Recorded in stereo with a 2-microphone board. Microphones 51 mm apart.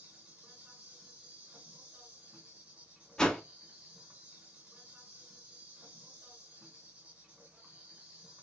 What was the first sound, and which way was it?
An insect, 30° right (ahead or behind).